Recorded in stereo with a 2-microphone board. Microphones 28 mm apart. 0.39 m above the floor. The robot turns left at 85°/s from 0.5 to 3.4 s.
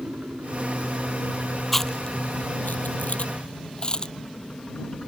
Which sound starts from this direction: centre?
Chewing, at 1.7 s.